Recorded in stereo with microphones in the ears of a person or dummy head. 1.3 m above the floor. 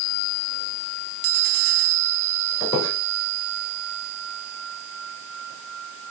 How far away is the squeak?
About 2.5 m.